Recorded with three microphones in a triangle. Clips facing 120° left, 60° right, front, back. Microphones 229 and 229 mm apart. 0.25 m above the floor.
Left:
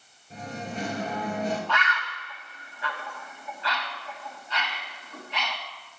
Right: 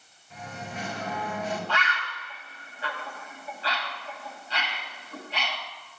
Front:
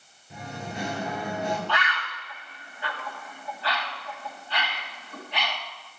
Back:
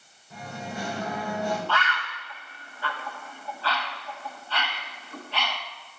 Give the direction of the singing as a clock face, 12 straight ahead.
10 o'clock.